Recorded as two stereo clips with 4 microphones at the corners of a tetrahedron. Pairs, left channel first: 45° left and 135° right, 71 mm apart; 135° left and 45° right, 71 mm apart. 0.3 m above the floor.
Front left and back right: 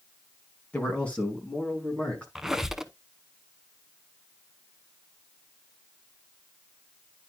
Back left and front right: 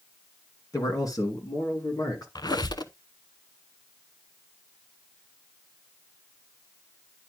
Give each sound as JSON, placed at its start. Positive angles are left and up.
{"t": 0.7, "sound": "a man speaking", "azimuth_deg": 115, "distance_m": 3.0}
{"t": 2.4, "sound": "a squeak", "azimuth_deg": 140, "distance_m": 0.7}